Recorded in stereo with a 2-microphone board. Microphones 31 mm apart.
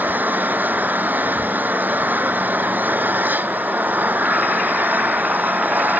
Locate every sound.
0.0 s an engine running: 70° right (ahead or behind)